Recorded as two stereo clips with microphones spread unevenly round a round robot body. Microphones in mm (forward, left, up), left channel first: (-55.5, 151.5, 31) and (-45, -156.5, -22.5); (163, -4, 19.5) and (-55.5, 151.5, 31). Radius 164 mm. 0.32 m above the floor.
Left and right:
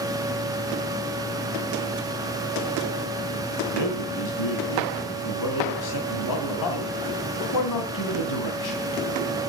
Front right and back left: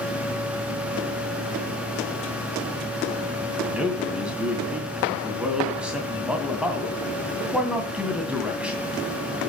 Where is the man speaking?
60° left, 2.5 m.